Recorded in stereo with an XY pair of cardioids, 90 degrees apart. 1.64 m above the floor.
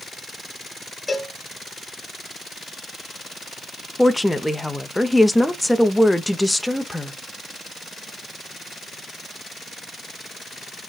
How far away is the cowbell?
About 1.0 m.